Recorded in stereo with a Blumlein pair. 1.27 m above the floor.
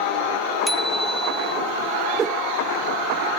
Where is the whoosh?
25° right.